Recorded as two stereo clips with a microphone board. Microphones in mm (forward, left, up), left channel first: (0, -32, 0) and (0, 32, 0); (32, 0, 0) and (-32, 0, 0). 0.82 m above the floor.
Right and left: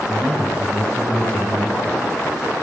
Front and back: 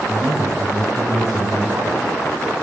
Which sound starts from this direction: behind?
A man speaking, at 0.1 s.